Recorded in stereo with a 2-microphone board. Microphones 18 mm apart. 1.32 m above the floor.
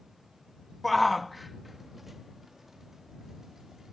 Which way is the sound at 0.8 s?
5° left (ahead or behind).